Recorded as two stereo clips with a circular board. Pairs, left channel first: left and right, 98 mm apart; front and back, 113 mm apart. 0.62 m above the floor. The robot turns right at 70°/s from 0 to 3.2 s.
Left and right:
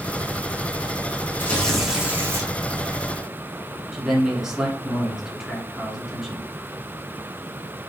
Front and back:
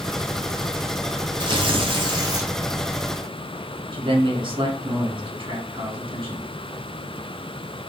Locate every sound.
1.4 s tearing paper: 150° left, 1.0 m; by 2.5 s 130° right, 1.0 m
3.9 s a man speaking: 170° right, 1.6 m